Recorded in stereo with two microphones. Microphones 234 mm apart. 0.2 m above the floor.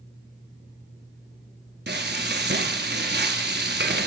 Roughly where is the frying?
Right.